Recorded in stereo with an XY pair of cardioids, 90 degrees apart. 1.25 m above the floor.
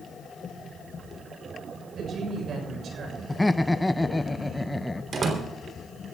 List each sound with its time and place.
1.9 s a woman speaking: 65° right, 6.5 m; by 3.2 s 70° right, 6.5 m
3.3 s laughter: 15° left, 0.5 m
5.1 s a door slam: 55° right, 3 m